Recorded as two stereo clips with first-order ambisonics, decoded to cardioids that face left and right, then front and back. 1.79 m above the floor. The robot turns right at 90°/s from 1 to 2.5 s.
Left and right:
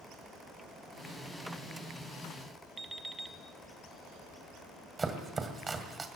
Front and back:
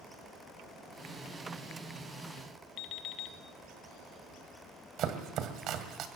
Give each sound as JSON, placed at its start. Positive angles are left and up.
{"t": 2.8, "sound": "an alarm clock", "azimuth_deg": -10, "distance_m": 1.2}
{"t": 5.0, "sound": "chopping", "azimuth_deg": -160, "distance_m": 2.0}